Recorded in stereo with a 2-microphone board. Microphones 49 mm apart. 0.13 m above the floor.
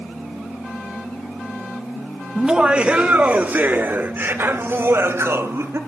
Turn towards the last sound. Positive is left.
turn(degrees=-60)  # may be behind; listen again after turning